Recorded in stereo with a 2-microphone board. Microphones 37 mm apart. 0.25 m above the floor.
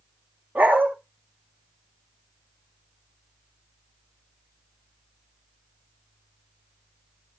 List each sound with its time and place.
0.6 s a dog barking: 60° right (ahead or behind), 5.5 m